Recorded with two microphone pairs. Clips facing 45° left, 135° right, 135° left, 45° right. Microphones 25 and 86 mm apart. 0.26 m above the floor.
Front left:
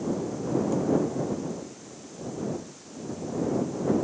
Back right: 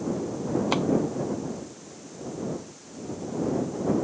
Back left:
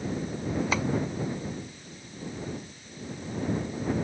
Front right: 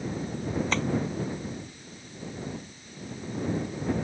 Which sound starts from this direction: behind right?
Tapping, at 0.7 s.